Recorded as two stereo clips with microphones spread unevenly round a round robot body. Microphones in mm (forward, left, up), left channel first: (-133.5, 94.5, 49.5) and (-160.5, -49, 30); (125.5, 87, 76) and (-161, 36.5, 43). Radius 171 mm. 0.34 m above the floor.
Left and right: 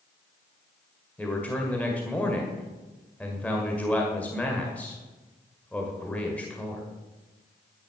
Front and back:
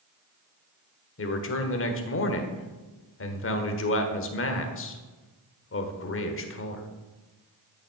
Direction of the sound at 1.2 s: 5° right.